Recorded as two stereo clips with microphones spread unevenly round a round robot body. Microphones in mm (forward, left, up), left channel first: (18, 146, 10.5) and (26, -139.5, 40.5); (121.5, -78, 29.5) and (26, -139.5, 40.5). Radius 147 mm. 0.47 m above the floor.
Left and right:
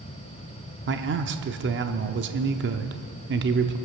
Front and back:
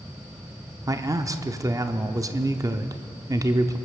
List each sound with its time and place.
0.9 s a man speaking: 100° right, 0.8 m